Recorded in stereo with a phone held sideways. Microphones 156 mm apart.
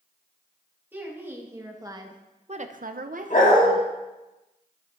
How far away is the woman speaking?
About 1.8 m.